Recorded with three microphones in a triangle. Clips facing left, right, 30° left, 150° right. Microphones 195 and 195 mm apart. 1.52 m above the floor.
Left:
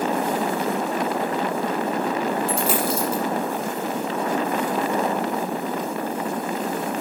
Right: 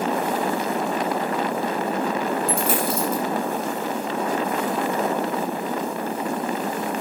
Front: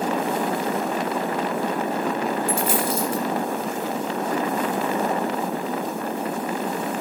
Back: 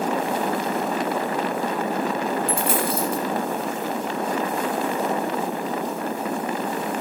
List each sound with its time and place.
2.5 s a dropped coin: 125° right, 6.5 m